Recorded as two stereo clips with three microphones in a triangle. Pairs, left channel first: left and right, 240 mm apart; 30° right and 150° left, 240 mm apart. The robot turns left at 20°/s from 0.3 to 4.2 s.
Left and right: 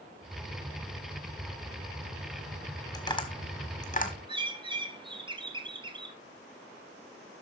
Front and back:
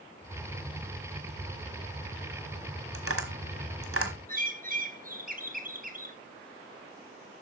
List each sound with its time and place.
2.9 s tapping: 160° left, 1.5 m; by 4.1 s 140° left, 1.5 m
4.3 s a bird: 155° right, 0.9 m